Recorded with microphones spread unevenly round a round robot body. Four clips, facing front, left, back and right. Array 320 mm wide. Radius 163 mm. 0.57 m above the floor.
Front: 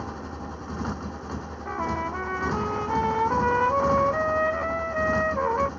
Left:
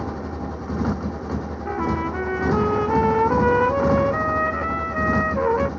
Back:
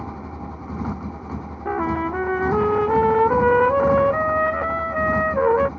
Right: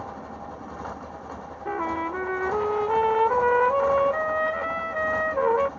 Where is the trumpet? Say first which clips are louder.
Left 2 dB, back 6 dB; 170° left.